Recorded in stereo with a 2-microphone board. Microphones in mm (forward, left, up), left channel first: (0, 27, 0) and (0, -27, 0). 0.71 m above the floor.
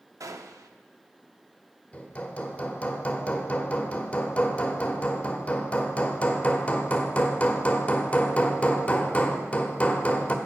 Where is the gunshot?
65° right (ahead or behind), 0.5 m.